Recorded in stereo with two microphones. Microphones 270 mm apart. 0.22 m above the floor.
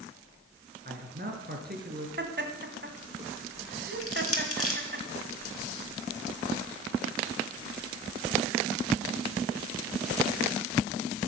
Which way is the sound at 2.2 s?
40° right (ahead or behind).